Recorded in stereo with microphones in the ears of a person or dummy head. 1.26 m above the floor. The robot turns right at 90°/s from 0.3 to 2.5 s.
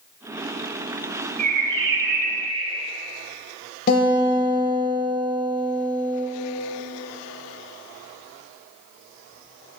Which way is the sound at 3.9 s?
50° left (ahead or behind).